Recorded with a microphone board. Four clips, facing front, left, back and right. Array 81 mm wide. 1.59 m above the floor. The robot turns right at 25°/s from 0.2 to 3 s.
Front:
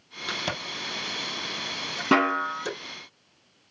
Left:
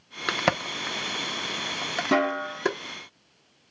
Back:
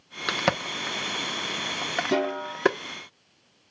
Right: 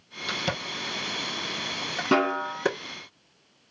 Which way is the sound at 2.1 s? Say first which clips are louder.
Right 1 dB, front 6 dB; 10° right.